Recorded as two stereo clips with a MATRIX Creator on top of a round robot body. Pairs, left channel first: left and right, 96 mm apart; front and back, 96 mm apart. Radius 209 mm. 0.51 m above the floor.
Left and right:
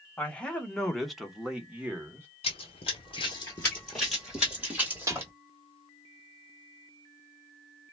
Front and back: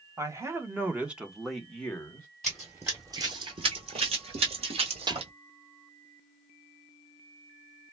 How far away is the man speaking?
About 1.4 m.